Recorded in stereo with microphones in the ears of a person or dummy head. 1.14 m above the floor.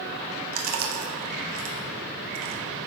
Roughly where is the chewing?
Right.